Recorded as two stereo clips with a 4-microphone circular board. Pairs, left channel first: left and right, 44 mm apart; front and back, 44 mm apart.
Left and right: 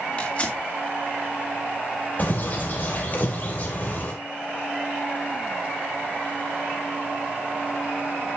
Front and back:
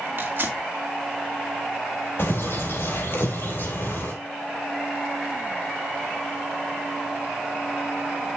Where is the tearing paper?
145° left, 2 m.